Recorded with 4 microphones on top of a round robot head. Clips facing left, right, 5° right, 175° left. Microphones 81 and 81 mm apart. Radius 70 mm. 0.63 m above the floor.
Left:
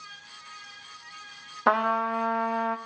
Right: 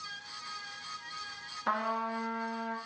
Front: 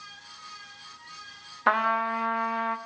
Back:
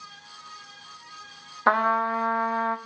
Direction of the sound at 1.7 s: 105° left.